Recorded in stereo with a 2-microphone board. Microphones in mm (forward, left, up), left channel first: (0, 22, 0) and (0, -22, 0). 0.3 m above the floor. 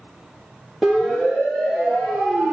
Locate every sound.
0.8 s a siren: 5° left (ahead or behind), 10 m; by 2.5 s centre (ahead or behind), 9 m